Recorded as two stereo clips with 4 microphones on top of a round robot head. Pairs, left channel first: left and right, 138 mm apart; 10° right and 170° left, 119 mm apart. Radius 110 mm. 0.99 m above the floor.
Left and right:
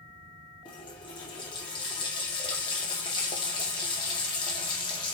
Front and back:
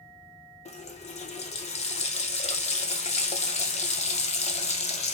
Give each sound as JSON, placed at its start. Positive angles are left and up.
{"t": 0.7, "sound": "a running tap", "azimuth_deg": 25, "distance_m": 0.7}